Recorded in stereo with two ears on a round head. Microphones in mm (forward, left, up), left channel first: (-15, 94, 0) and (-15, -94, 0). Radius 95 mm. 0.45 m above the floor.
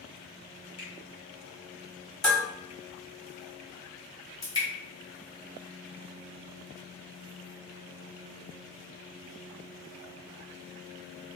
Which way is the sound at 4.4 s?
20° left (ahead or behind).